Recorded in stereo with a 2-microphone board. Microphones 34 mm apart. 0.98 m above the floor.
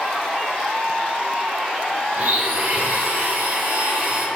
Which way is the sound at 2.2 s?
65° right (ahead or behind).